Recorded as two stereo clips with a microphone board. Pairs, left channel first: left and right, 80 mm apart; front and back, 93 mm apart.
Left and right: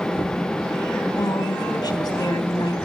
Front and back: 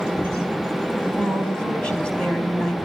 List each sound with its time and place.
1.2 s a woman speaking: 80° left, 3 m